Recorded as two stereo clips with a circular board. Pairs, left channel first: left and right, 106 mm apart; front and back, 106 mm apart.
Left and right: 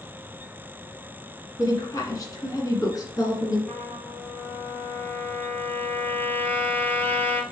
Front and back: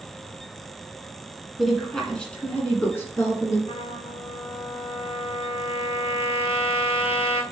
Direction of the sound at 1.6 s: 90° left.